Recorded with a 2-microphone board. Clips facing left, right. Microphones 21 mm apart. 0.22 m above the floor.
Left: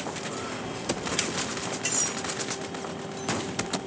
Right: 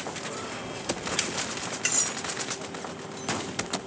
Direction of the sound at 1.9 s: 30° right (ahead or behind).